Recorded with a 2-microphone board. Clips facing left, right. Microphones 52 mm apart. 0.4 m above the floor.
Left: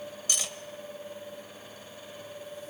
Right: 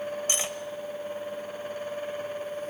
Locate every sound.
0.3 s cutlery clinking: 35° right (ahead or behind), 1.2 m